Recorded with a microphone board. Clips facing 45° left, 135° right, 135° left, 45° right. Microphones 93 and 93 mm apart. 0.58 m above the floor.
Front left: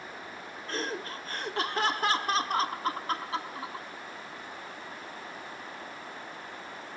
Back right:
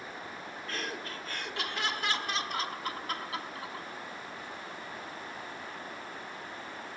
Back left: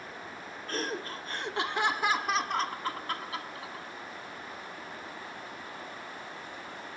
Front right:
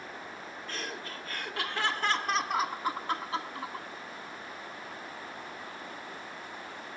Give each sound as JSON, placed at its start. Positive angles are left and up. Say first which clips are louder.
{"t": 0.7, "sound": "laughter", "louder": "front left 5 dB, back left 6 dB", "azimuth_deg": 95, "distance_m": 1.6}